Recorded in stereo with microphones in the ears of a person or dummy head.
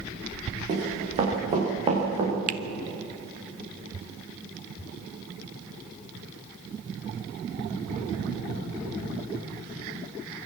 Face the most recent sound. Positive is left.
turn(degrees=-45)  # may be behind; listen again after turning